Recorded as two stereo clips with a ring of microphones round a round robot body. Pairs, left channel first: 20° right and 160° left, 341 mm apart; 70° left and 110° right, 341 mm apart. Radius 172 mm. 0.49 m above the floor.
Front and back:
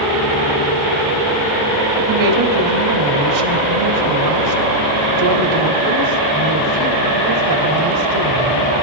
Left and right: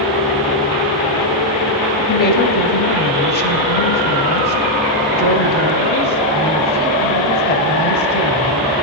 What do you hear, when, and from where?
2.1 s a woman speaking: 130° left, 2.5 m